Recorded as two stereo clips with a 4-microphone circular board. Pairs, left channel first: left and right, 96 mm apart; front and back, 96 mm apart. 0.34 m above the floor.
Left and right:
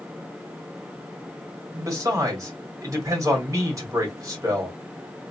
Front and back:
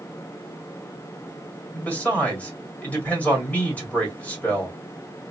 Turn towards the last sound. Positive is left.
turn(degrees=-65)